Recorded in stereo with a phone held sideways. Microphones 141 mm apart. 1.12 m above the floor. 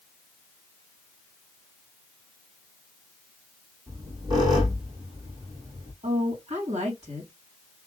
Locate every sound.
3.9 s a squeak: 35° right (ahead or behind), 1.7 m
6.0 s a woman speaking: 60° right (ahead or behind), 1.7 m